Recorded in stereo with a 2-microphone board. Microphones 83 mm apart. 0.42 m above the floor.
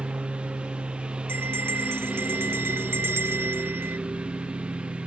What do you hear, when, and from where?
0.0 s a lawn mower: 10° right (ahead or behind)
1.3 s a bell: 30° right (ahead or behind)